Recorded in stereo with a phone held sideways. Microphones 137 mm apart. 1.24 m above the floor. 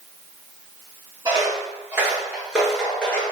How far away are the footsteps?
About 1.5 m.